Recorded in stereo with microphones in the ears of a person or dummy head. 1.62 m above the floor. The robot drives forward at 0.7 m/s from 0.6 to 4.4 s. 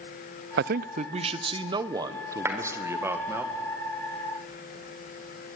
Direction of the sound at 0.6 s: 55° right (ahead or behind).